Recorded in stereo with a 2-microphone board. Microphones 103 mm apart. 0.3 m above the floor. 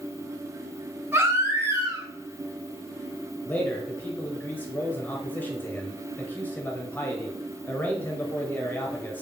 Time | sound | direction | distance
1.1 | a baby crying | 25° right (ahead or behind) | 1.2 m
3.5 | a man speaking | 15° left (ahead or behind) | 0.9 m